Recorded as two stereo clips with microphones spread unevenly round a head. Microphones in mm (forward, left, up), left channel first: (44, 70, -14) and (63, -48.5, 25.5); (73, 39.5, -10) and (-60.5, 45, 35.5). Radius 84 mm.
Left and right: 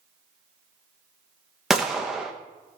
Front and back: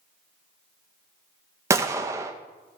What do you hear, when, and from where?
1.7 s a gunshot: 145° right, 0.5 m